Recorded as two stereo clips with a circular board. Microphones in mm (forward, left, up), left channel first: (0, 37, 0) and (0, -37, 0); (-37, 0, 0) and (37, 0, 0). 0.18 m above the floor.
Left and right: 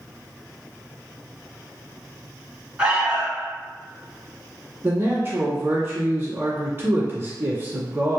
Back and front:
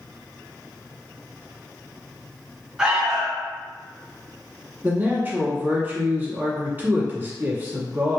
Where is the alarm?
55° right, 1.5 m.